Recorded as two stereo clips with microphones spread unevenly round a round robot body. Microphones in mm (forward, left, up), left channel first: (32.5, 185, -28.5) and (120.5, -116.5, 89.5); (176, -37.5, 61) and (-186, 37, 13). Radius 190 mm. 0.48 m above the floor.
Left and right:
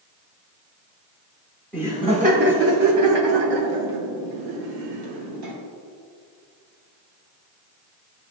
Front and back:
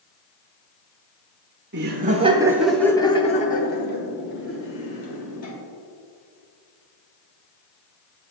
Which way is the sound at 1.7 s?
170° left.